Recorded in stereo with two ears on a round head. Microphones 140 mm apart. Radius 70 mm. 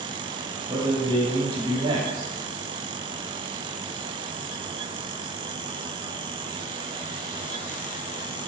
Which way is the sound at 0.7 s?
35° right (ahead or behind).